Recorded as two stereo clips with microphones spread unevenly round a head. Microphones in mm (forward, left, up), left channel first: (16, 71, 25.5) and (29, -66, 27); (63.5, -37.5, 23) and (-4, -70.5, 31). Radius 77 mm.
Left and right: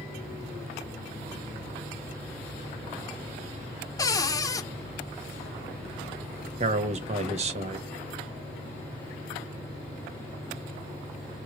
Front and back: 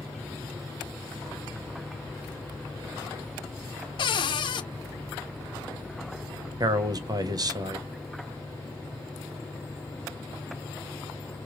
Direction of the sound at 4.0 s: 30° left.